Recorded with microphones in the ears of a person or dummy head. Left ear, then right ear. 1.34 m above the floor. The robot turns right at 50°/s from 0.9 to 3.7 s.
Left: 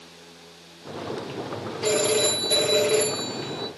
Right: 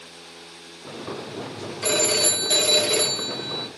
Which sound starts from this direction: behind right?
A phone ringing, at 1.8 s.